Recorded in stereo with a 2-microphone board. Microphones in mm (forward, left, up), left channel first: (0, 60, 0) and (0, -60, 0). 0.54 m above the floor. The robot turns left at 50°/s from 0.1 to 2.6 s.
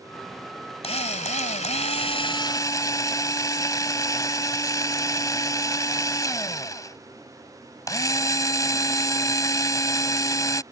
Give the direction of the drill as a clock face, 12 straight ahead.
8 o'clock.